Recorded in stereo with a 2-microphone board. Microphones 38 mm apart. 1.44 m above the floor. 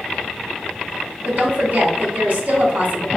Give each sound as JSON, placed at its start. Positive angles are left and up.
{"t": 1.2, "sound": "a woman speaking", "side_deg": -45, "distance_m": 0.8}